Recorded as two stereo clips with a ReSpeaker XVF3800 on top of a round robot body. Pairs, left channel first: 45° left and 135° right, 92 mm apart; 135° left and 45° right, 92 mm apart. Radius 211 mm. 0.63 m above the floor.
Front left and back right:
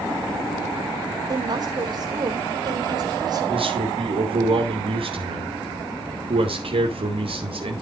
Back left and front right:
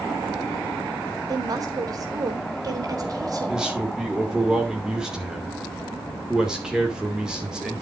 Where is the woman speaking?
95° right, 3.5 m.